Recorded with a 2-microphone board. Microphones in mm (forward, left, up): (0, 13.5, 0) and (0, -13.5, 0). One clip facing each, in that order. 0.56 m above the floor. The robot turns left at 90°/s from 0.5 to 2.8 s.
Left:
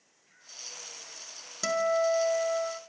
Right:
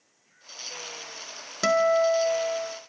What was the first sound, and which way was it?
A guitar, 115° right.